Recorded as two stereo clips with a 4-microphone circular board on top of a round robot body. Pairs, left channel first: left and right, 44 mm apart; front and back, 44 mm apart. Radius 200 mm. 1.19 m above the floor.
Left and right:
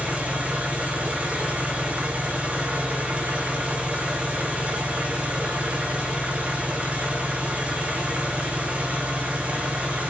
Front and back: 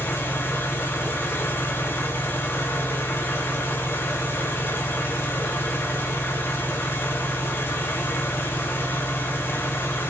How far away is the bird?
No bird in this recording.